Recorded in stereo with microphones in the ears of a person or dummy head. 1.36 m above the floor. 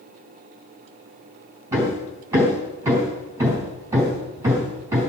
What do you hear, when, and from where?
1.7 s hammering: 10° right (ahead or behind), 3 m